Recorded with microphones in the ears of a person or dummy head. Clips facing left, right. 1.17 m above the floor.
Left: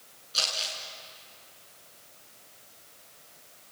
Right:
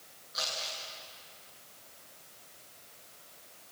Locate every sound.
0.3 s crumpling: 50° left (ahead or behind), 8 m